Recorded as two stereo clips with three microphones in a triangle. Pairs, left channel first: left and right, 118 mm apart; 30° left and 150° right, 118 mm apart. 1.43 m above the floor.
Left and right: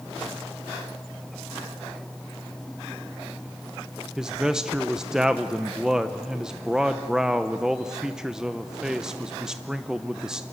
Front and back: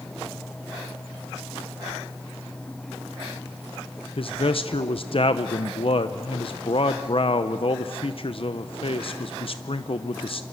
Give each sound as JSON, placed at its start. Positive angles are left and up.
{"t": 4.2, "sound": "a man speaking", "azimuth_deg": -5, "distance_m": 0.7}